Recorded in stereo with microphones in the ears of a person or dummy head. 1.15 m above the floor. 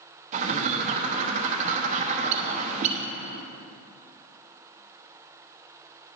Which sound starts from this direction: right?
A bird, at 0.3 s.